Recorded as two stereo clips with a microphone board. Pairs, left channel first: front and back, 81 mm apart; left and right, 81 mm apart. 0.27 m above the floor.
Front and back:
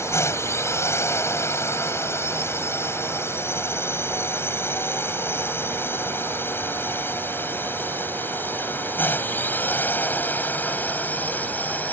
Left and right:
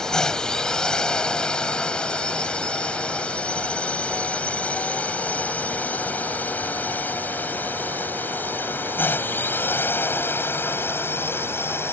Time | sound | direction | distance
0.0 | a drone | 15° left | ?